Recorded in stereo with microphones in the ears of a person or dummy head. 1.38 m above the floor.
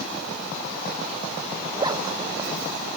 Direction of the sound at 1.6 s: 20° right (ahead or behind).